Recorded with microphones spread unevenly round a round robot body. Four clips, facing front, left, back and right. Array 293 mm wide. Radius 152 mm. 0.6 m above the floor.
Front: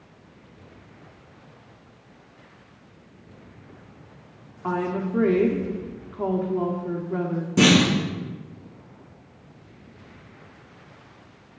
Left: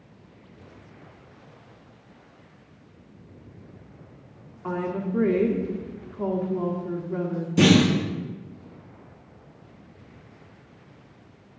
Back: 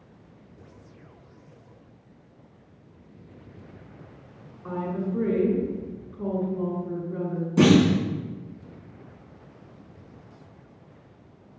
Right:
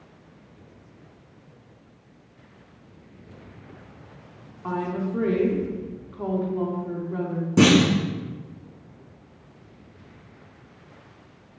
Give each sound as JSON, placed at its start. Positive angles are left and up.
{"t": 4.6, "sound": "a woman speaking", "azimuth_deg": 0, "distance_m": 1.7}
{"t": 7.6, "sound": "a clunk", "azimuth_deg": -70, "distance_m": 5.0}